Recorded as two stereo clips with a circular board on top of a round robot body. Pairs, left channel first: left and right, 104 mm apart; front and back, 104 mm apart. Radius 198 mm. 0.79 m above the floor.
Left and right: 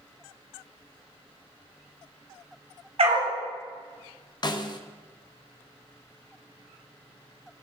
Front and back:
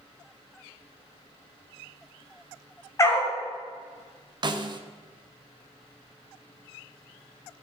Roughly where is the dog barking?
Ahead right.